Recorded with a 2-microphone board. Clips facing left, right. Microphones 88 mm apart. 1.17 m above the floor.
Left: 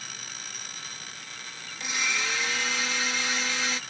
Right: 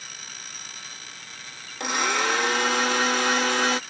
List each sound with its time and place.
1.8 s a blender: 60° right (ahead or behind)